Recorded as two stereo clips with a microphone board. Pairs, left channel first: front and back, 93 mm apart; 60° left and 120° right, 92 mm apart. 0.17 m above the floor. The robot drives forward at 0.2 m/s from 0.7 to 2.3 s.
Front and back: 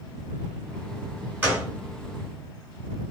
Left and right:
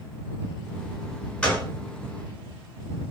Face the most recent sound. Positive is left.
turn(degrees=140)